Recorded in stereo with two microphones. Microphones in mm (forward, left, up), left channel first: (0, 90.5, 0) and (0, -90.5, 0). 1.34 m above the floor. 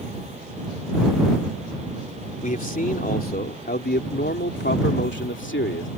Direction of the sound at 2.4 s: 45° left (ahead or behind).